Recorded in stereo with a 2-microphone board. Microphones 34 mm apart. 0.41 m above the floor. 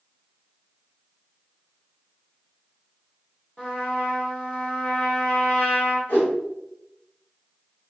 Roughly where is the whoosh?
Left.